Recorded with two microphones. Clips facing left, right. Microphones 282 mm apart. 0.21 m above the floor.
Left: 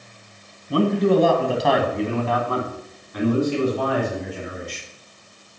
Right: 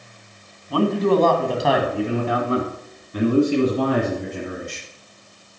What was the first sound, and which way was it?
A man speaking, 25° left (ahead or behind).